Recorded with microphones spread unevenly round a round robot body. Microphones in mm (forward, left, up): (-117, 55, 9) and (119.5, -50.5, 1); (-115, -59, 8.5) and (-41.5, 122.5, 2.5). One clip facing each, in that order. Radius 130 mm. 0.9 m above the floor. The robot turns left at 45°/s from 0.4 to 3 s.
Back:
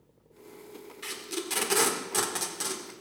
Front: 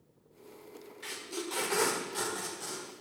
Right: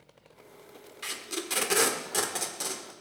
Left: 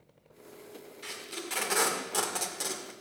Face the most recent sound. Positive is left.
turn(degrees=140)